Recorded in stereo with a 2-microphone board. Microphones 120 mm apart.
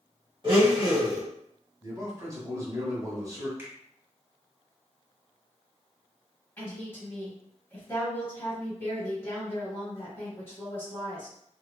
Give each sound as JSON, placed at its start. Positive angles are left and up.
{"t": 0.4, "sound": "a blender", "side_deg": -35, "distance_m": 1.5}
{"t": 1.8, "sound": "a man speaking", "side_deg": -25, "distance_m": 1.3}
{"t": 3.6, "sound": "a finger snap", "side_deg": -20, "distance_m": 1.2}
{"t": 6.6, "sound": "a woman speaking", "side_deg": 20, "distance_m": 1.1}